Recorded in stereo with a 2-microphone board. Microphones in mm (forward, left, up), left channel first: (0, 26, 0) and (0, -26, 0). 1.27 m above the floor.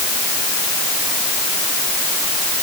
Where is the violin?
I don't hear a violin.